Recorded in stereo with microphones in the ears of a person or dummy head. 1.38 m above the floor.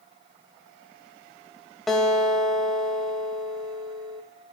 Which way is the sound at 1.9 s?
Centre (ahead or behind).